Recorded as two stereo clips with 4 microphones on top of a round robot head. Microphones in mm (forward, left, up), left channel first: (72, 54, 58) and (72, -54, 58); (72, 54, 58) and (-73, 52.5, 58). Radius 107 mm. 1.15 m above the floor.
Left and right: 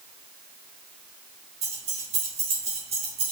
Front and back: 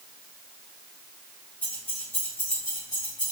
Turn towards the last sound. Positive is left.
turn(degrees=-65)